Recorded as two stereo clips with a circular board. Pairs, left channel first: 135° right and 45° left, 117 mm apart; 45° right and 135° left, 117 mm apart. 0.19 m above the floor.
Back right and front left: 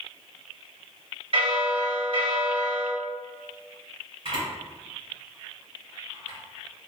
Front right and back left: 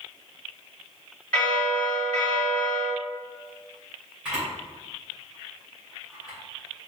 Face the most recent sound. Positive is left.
turn(degrees=55)